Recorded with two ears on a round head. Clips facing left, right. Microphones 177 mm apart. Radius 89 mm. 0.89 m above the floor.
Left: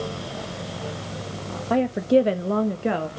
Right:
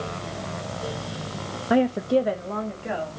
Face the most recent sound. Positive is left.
turn(degrees=65)  # may be behind; listen again after turning